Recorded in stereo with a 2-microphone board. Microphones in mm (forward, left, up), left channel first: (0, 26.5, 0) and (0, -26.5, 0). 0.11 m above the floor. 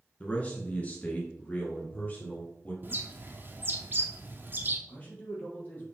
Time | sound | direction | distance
0.2 | a man speaking | 25° left (ahead or behind) | 1.4 m
2.8 | a bird | 40° right (ahead or behind) | 1.0 m
4.9 | a man speaking | 30° left (ahead or behind) | 3 m